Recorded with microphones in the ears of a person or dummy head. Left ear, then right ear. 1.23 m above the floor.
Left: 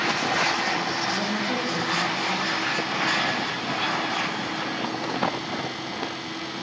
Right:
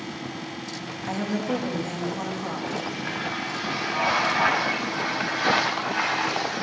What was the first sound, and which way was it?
A woman speaking, 60° right (ahead or behind).